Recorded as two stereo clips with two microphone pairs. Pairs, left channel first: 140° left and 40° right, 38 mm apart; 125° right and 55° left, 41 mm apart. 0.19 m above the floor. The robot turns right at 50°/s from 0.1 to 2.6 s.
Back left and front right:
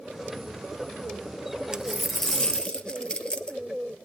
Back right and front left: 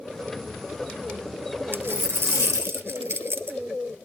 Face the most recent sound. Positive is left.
turn(degrees=75)